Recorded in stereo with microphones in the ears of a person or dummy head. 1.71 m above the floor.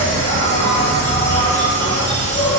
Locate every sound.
0.0 s an insect: 30° left (ahead or behind), 0.7 m